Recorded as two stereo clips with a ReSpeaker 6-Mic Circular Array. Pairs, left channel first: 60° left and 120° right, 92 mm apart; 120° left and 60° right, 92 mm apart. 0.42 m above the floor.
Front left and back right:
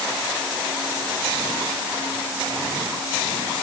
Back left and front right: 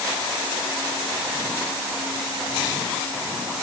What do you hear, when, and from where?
Only background noise.